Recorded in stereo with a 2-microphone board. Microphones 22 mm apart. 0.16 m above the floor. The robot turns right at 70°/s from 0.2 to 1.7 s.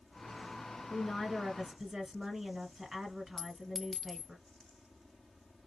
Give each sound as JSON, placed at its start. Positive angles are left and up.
{"t": 0.9, "sound": "a woman speaking", "azimuth_deg": 150, "distance_m": 2.0}
{"t": 3.4, "sound": "a clink", "side_deg": 5, "distance_m": 0.6}